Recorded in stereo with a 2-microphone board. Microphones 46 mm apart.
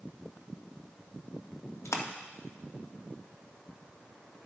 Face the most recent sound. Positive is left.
turn(degrees=90)